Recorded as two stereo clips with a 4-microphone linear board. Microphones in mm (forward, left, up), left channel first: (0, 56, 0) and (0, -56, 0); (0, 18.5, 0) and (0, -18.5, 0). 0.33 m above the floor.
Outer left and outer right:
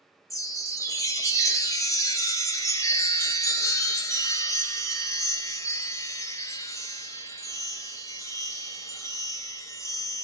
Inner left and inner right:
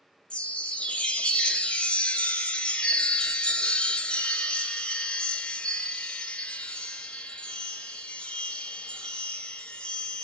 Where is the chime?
30° left (ahead or behind), 0.5 m.